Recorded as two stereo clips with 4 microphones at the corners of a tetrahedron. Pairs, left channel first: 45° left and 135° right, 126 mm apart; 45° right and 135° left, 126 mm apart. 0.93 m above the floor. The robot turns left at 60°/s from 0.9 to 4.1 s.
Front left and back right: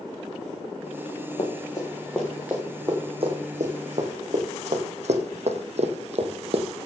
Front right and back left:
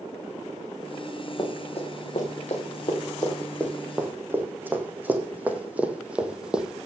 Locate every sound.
1.4 s running footsteps: 5° left, 4.5 m; by 6.9 s 140° right, 1.5 m